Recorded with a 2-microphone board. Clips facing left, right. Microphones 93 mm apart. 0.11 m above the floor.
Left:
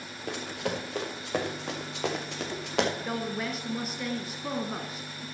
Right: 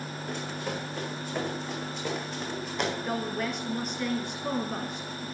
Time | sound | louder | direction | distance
0.3 | running footsteps | left 3 dB | 80° left | 4 m
3.0 | a woman speaking | right 2 dB | 5° left (ahead or behind) | 1.7 m